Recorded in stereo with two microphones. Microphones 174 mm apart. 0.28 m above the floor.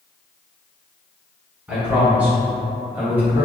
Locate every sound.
1.7 s a man speaking: 5° right (ahead or behind), 1.6 m; by 3.5 s 10° right (ahead or behind), 1.8 m